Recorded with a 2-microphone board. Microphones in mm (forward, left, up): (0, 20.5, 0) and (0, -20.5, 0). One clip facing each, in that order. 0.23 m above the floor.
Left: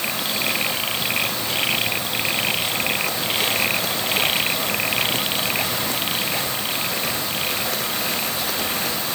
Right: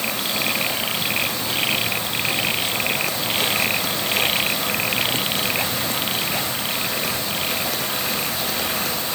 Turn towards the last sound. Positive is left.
No sound to turn to.